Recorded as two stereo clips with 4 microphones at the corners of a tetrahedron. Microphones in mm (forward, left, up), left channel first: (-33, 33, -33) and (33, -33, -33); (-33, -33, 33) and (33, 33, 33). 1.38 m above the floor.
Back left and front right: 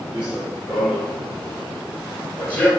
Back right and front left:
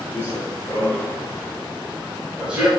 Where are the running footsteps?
110° right, 1.8 m; by 2.7 s 95° left, 1.4 m.